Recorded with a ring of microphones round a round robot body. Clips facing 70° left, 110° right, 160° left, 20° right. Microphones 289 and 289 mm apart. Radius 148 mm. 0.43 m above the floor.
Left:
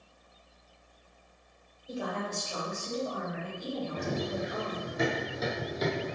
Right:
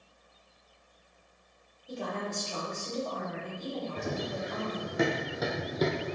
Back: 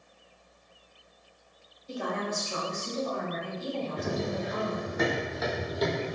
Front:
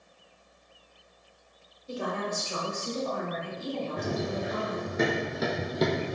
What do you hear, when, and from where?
1.9 s a woman speaking: 5° right, 1.5 m; by 4.9 s 10° right, 2.5 m
4.0 s running footsteps: 105° right, 1.8 m; by 6.2 s 45° right, 0.8 m